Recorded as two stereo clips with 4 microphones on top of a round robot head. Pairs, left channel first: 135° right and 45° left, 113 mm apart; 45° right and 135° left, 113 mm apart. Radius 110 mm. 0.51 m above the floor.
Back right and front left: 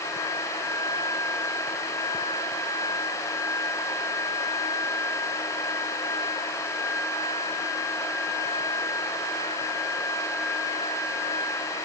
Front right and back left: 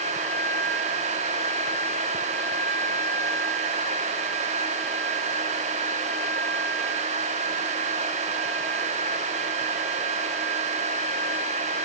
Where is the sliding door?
No sliding door in this recording.